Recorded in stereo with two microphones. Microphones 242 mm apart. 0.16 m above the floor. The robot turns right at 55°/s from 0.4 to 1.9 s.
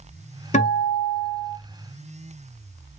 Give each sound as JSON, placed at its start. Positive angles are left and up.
{"t": 0.5, "sound": "a guitar", "azimuth_deg": 105, "distance_m": 0.8}